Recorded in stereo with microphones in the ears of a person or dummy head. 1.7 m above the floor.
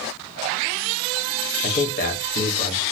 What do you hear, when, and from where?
1.6 s a man speaking: 45° left (ahead or behind), 0.9 m